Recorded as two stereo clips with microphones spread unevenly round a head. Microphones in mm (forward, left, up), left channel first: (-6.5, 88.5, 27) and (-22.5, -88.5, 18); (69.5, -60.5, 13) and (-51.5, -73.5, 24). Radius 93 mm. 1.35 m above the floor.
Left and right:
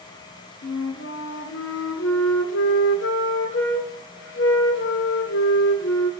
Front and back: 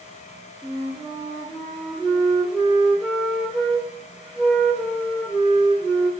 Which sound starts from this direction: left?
A flute, at 0.6 s.